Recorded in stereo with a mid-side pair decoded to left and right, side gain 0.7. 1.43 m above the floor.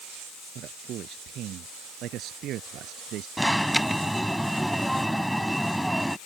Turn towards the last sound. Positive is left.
turn(degrees=5)